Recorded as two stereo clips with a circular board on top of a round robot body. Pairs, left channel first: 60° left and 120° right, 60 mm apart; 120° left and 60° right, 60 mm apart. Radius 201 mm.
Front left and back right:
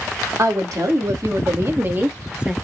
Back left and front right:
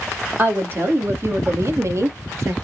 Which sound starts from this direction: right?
A woman speaking, at 0.4 s.